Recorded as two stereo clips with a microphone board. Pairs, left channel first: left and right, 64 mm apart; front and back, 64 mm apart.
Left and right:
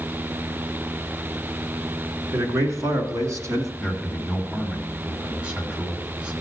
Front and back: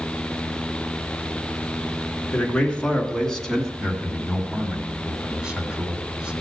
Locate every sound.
2.3 s a man speaking: 70° right, 2 m; by 3.7 s 85° right, 1.6 m
3.8 s a man speaking: 135° right, 1.4 m